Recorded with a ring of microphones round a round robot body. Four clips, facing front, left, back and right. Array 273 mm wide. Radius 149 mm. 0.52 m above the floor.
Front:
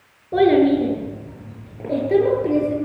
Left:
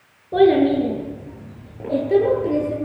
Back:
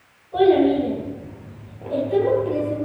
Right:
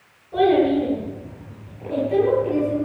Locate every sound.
0.3 s a child speaking: 40° left, 7.5 m